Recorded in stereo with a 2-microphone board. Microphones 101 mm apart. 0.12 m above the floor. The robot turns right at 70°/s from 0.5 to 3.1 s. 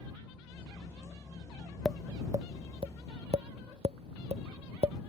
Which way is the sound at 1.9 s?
Centre (ahead or behind).